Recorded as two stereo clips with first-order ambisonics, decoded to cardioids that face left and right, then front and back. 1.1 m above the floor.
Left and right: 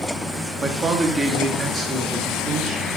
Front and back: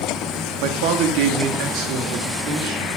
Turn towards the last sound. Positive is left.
turn(degrees=-160)